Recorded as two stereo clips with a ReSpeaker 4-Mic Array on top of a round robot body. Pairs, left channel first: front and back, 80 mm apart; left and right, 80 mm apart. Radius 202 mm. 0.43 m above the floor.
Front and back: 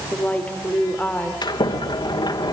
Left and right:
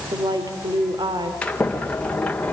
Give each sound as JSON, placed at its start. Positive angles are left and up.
{"t": 0.1, "sound": "a woman speaking", "azimuth_deg": -70, "distance_m": 2.5}
{"t": 1.4, "sound": "a sliding door", "azimuth_deg": 15, "distance_m": 2.5}